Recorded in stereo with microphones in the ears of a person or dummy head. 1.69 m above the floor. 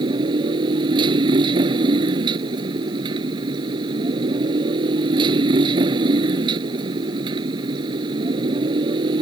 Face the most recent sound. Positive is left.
turn(degrees=-25)  # may be behind; listen again after turning